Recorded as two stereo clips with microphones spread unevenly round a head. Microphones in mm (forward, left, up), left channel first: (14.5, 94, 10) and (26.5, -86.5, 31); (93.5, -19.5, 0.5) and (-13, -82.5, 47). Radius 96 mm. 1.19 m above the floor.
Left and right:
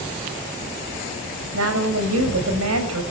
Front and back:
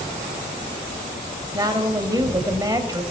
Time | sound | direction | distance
1.5 | a woman speaking | 90° right | 6.5 m